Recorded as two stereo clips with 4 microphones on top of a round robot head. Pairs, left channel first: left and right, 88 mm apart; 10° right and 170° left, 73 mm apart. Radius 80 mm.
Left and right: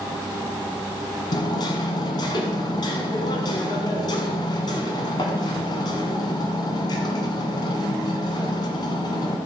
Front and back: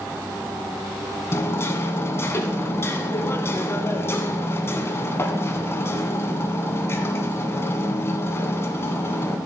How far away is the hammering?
About 1.3 m.